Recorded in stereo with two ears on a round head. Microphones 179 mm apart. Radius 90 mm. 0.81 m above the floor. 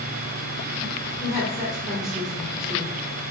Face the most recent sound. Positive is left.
turn(degrees=0)  # may be behind; listen again after turning